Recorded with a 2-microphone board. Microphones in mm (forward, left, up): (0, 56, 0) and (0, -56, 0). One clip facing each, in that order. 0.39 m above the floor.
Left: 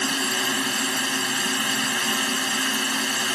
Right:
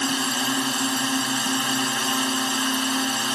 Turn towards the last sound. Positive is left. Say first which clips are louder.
# right 2 dB
turn(degrees=-20)  # may be behind; listen again after turning